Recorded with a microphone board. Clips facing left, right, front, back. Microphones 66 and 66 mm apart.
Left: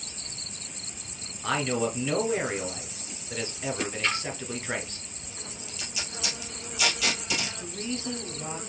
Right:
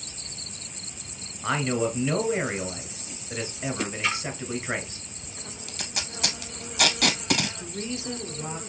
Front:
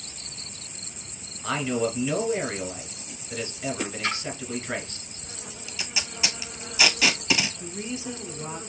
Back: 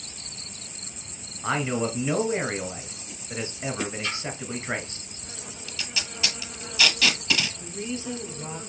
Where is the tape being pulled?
70° right, 0.8 m.